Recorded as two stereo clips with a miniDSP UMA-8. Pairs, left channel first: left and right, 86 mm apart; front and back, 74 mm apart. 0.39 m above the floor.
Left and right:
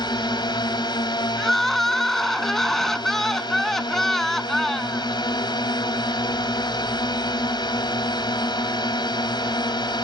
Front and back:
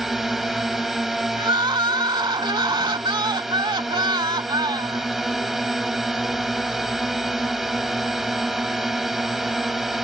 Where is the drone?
95° left.